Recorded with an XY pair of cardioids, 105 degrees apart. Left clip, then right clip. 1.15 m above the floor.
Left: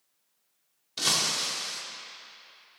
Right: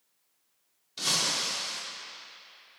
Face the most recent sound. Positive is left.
turn(degrees=45)